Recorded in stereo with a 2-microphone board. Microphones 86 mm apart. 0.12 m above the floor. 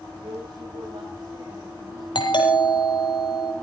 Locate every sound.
0.2 s a woman speaking: 80° right, 9 m
2.1 s a doorbell: 60° left (ahead or behind), 3.5 m